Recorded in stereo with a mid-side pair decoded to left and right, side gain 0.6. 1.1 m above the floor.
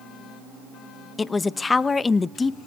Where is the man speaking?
20° left, 0.7 m.